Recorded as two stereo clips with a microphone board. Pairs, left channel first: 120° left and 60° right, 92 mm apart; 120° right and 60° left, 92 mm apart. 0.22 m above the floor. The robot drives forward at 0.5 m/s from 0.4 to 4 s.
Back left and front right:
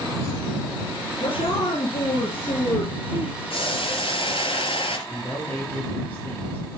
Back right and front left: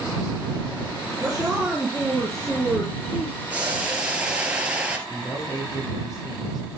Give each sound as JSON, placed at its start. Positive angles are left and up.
{"t": 1.2, "sound": "a woman speaking", "azimuth_deg": 135, "distance_m": 3.5}
{"t": 3.5, "sound": "boiling", "azimuth_deg": 135, "distance_m": 2.5}
{"t": 5.1, "sound": "a man speaking", "azimuth_deg": -170, "distance_m": 6.5}